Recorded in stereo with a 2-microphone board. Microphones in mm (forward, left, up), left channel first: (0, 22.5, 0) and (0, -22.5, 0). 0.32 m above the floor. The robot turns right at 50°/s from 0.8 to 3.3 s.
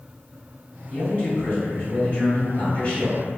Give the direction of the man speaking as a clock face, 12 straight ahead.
11 o'clock.